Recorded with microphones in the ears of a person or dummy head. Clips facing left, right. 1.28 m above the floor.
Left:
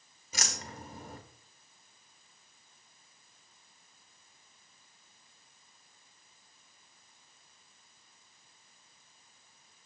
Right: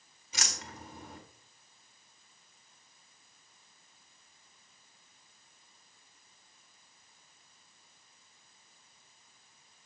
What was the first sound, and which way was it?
Keys jangling, 35° left (ahead or behind).